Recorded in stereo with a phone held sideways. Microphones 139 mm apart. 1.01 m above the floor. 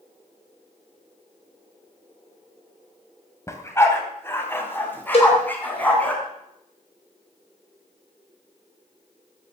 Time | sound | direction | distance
3.5 | a dog barking | 20° left (ahead or behind) | 2.5 m
5.1 | a cowbell | 50° left (ahead or behind) | 4.5 m